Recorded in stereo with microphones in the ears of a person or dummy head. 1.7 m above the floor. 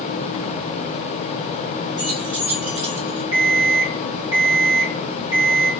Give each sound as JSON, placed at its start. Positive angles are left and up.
{"t": 2.0, "sound": "keys jangling", "side_deg": -30, "distance_m": 0.9}
{"t": 3.3, "sound": "an alarm clock", "side_deg": -15, "distance_m": 1.2}